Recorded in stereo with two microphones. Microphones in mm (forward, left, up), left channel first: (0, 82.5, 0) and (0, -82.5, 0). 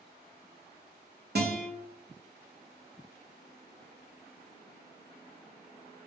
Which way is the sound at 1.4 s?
70° right (ahead or behind).